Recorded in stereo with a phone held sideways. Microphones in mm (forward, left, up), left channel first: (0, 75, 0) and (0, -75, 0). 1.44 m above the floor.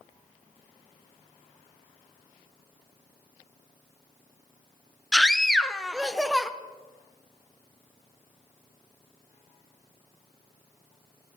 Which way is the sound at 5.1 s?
Centre (ahead or behind).